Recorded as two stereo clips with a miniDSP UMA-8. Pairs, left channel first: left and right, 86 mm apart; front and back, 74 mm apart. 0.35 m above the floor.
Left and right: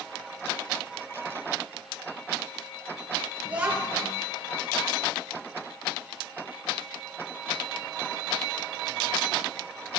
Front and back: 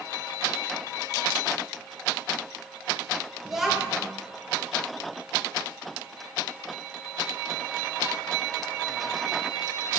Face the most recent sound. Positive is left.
turn(degrees=-105)